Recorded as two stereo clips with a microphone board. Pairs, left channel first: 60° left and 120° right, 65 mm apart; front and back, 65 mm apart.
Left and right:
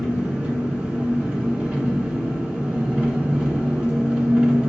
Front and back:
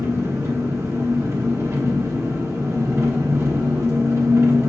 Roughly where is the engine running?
Behind.